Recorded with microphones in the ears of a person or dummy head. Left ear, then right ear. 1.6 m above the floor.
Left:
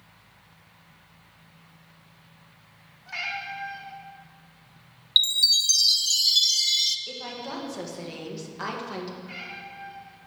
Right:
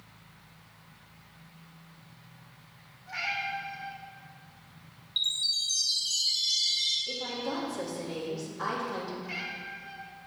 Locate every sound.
3.1 s a cat meowing: 50° left (ahead or behind), 1.7 m
5.2 s a chime: 75° left (ahead or behind), 0.7 m
7.1 s a woman speaking: 65° left (ahead or behind), 2.0 m
9.2 s a cat meowing: 5° right (ahead or behind), 2 m